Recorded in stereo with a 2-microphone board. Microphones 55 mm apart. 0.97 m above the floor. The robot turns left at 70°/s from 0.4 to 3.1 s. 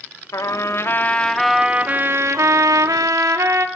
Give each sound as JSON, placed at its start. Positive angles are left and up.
{"t": 0.3, "sound": "a trumpet", "azimuth_deg": 75, "distance_m": 1.9}